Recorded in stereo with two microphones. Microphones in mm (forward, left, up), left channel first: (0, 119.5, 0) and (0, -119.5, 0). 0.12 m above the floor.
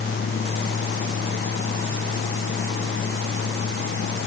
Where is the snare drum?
I don't hear a snare drum.